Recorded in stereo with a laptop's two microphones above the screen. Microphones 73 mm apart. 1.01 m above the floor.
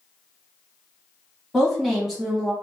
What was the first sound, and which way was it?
A woman speaking, centre (ahead or behind).